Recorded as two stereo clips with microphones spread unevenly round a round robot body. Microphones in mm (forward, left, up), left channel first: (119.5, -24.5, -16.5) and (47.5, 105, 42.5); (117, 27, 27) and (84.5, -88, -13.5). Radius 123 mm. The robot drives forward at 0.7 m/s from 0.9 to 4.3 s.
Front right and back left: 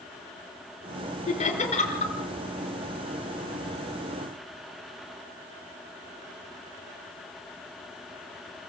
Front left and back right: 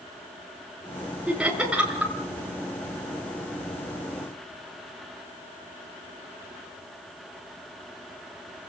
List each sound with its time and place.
1.3 s laughter: 25° right, 5.5 m; by 2.1 s 30° right, 5 m